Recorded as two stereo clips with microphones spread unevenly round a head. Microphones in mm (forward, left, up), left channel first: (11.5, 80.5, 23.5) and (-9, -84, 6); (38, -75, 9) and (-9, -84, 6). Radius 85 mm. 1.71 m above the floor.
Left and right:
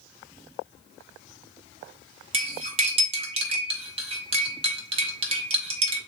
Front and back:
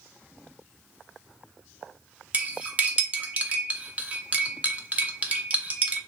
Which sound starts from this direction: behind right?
Cutlery clinking, at 2.3 s.